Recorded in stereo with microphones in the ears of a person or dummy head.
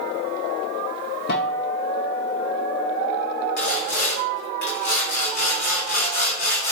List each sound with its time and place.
1.3 s a guitar: 65° left (ahead or behind), 1.8 m
3.6 s sawing: 55° left (ahead or behind), 3 m